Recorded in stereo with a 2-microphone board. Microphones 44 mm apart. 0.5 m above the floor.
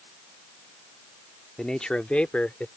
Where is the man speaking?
15° left (ahead or behind); by 2.7 s 35° left (ahead or behind).